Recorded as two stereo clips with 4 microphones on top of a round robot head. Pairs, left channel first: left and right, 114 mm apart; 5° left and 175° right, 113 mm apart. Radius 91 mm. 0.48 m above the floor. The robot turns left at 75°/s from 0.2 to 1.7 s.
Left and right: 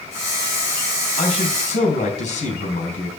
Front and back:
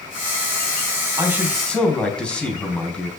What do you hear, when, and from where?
1.2 s a man speaking: 130° left, 3.5 m; by 3.1 s 90° left, 3.5 m